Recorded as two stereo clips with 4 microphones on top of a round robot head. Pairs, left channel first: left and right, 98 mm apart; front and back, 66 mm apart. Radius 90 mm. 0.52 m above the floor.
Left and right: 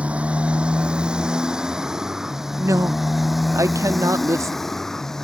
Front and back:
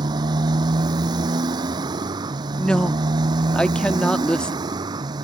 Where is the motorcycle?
170° right; by 5.2 s 175° left.